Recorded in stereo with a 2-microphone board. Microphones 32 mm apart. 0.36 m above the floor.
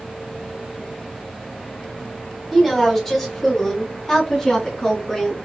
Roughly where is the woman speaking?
Centre.